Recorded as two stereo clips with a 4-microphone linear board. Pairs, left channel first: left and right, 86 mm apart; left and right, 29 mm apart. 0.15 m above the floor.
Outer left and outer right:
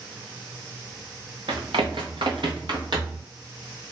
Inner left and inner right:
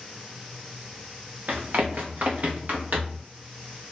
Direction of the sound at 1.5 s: 75° right (ahead or behind).